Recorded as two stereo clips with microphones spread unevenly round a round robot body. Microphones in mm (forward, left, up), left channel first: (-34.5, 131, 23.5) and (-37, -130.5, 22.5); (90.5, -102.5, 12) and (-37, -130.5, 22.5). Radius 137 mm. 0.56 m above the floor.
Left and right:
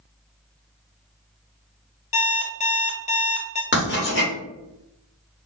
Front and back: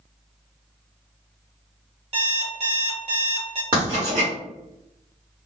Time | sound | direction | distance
2.1 | an alarm clock | 150° left | 0.7 m
3.7 | writing | 135° left | 1.6 m